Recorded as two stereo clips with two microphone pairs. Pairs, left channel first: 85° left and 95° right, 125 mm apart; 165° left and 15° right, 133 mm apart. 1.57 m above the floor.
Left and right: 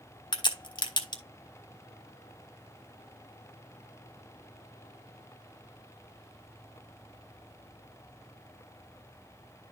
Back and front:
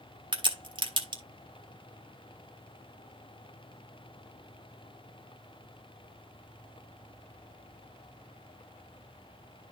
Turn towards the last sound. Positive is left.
turn(degrees=35)